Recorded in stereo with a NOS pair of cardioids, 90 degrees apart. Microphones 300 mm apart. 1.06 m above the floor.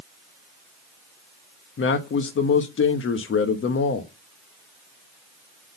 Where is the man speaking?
45° left, 1.1 m.